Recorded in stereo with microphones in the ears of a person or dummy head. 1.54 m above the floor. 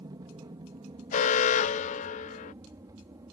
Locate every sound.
0.0 s an aircraft: 20° right (ahead or behind)
1.1 s an alarm: 35° left (ahead or behind)